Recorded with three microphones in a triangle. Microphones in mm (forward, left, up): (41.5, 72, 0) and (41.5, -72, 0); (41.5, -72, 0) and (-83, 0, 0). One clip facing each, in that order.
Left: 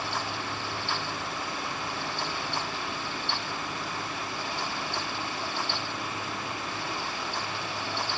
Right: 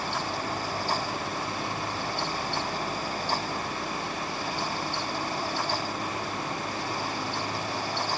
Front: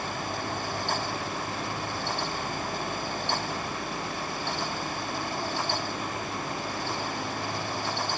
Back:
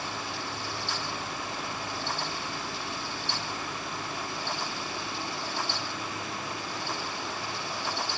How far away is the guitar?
No guitar in this recording.